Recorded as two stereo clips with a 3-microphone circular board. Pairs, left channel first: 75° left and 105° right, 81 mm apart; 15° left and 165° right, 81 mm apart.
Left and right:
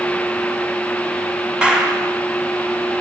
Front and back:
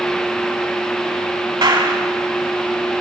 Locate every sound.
1.6 s a clap: 175° left, 4 m